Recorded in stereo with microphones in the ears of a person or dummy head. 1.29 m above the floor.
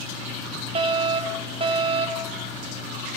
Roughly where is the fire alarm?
Right.